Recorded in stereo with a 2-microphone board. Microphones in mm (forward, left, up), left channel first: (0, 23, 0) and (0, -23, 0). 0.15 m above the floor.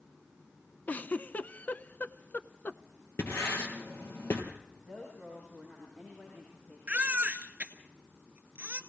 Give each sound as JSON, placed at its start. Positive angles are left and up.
{"t": 0.9, "sound": "a giggle", "side_deg": 40, "distance_m": 0.6}
{"t": 3.2, "sound": "writing", "side_deg": 65, "distance_m": 4.0}
{"t": 4.9, "sound": "a woman speaking", "side_deg": 45, "distance_m": 9.5}
{"t": 6.9, "sound": "a baby crying", "side_deg": -30, "distance_m": 1.5}